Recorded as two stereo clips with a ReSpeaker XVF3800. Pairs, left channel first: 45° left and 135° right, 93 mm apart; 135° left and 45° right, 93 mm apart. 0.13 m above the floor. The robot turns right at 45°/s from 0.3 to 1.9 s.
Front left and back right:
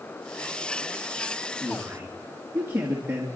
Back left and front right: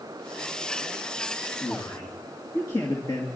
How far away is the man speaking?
About 2 m.